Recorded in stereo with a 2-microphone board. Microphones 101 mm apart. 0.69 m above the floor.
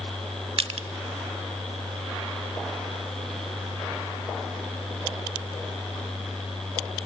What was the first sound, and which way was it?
Crushing, 70° right (ahead or behind).